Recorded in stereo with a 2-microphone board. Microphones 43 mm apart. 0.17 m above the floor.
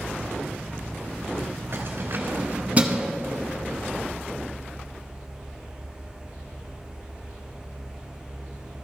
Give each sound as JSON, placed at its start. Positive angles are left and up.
{"t": 1.7, "sound": "keys jangling", "side_deg": -55, "distance_m": 1.3}